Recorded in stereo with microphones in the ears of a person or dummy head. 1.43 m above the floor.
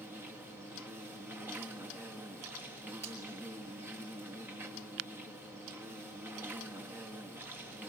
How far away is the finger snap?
About 5.5 m.